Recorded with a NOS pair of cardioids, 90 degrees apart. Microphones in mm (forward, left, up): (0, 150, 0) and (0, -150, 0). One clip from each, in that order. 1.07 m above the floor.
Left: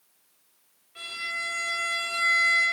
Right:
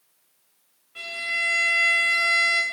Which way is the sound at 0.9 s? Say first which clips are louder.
Right 5 dB; 20° right.